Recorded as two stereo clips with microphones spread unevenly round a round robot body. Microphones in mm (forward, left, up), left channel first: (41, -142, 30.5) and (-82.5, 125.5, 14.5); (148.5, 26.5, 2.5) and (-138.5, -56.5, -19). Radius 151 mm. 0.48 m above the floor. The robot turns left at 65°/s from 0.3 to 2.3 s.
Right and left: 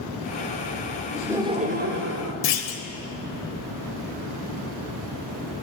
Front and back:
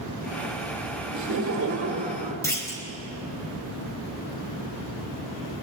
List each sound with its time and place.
1.1 s laughter: 165° right, 1.3 m; by 2.3 s 120° left, 1.3 m
2.4 s a clunk: 65° right, 1.1 m